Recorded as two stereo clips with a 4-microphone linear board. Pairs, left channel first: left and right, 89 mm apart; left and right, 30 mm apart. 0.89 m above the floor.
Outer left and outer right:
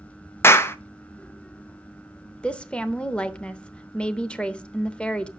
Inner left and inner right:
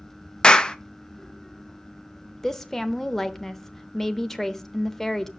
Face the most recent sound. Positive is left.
turn(degrees=10)  # may be behind; listen again after turning